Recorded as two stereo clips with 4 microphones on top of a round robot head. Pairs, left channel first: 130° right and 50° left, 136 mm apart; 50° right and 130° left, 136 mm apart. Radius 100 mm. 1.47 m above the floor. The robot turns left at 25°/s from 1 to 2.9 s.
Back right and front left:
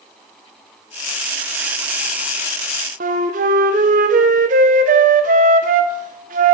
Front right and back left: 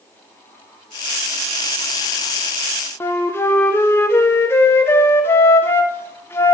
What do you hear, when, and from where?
3.0 s a flute: 20° left, 0.6 m